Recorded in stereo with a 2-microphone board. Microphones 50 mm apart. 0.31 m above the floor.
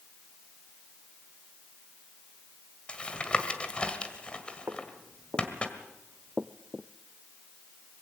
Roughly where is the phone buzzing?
I don't hear a phone buzzing.